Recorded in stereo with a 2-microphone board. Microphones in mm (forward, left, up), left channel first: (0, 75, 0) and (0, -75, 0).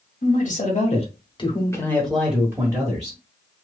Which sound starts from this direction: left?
A man speaking, at 0.2 s.